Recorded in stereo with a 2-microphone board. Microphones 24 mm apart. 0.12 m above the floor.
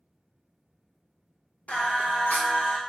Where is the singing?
75° left (ahead or behind), 0.9 m.